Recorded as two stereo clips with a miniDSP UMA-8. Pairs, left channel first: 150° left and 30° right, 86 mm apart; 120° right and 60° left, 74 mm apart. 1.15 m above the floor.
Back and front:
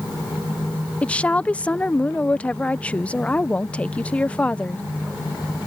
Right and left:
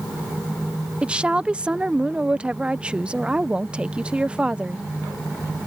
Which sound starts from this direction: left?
A woman speaking, at 1.0 s.